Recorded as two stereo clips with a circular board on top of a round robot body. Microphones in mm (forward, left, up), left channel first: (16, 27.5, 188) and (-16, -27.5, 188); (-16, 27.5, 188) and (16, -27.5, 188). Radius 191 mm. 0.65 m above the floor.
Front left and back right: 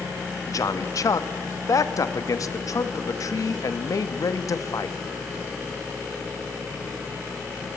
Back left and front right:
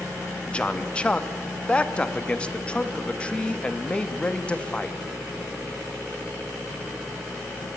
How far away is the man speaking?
About 1.6 m.